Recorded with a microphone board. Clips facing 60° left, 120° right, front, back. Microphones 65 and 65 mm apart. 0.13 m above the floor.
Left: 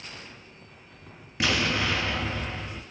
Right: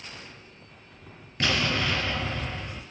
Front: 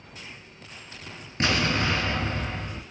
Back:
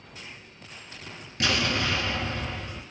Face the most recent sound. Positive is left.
turn(degrees=-15)